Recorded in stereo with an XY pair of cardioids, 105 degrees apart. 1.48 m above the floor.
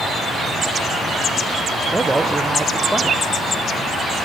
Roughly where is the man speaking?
Ahead.